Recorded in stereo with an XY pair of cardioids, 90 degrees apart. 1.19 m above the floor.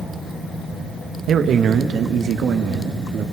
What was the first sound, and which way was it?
A man speaking, 70° right.